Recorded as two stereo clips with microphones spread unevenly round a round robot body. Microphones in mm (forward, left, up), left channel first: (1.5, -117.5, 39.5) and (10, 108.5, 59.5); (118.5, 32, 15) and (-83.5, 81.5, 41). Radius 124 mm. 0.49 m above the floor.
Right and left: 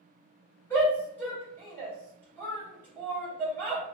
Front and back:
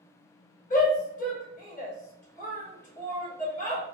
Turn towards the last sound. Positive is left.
turn(degrees=-20)